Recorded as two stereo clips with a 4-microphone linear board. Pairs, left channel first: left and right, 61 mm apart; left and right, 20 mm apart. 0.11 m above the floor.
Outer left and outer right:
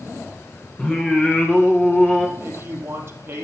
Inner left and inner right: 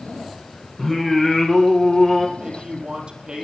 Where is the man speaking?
40° right (ahead or behind), 4.5 m.